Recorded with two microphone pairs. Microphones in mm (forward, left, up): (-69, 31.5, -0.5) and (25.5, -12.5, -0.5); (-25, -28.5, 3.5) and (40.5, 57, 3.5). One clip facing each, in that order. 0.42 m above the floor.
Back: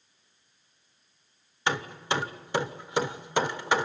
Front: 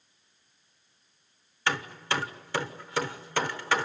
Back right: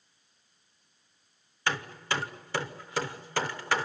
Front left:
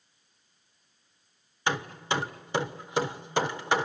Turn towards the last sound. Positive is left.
turn(degrees=105)